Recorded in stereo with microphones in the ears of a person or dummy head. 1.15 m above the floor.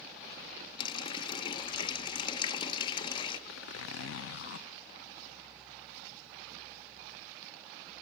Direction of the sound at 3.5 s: 70° left (ahead or behind).